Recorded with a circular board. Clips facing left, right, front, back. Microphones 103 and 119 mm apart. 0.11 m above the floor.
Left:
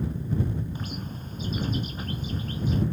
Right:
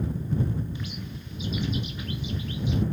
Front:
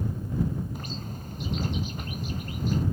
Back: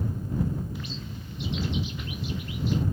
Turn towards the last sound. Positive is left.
turn(degrees=45)